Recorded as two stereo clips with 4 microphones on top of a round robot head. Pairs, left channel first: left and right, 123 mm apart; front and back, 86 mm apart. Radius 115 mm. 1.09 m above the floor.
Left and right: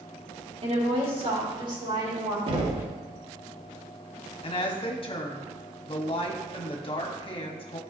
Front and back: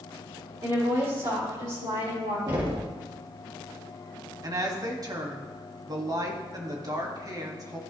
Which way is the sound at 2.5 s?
135° right.